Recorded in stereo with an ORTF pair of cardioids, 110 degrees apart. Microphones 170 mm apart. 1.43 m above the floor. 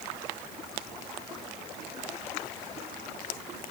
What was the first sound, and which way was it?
Only background noise.